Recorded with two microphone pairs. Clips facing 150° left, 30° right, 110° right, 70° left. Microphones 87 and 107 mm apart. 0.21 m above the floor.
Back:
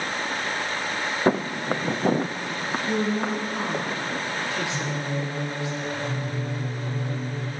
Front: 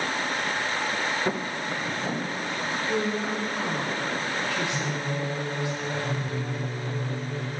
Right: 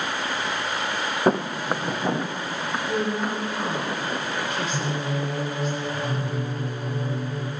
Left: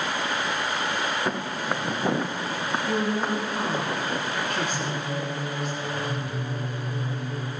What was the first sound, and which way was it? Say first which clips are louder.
Footsteps: back 6 dB, right 6 dB; 165° right.